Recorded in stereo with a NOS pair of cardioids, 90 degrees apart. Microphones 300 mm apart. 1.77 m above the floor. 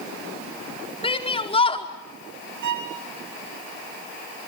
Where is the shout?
20° left, 4.5 m.